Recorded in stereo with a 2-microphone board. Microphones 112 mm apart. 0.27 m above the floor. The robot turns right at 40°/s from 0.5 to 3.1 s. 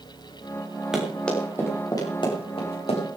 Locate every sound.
0.9 s running footsteps: 5° right (ahead or behind), 5.5 m; by 3.0 s 75° left (ahead or behind), 6.5 m